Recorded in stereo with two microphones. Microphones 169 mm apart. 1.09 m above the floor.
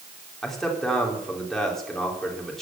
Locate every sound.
0.4 s a man speaking: centre (ahead or behind), 3.5 m